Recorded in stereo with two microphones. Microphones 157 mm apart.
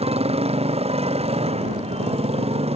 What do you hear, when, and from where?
0.0 s a motorcycle: 40° right (ahead or behind)